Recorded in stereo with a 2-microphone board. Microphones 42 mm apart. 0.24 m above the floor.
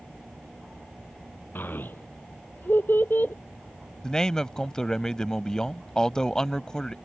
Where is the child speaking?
55° left (ahead or behind).